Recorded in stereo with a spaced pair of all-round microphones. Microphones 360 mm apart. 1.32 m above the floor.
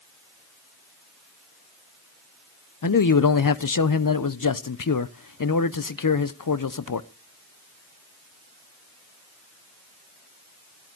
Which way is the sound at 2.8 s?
60° left (ahead or behind).